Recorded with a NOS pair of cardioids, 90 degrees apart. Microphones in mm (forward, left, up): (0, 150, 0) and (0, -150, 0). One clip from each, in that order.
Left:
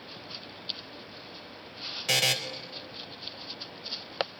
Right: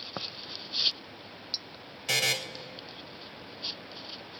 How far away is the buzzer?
About 1.0 m.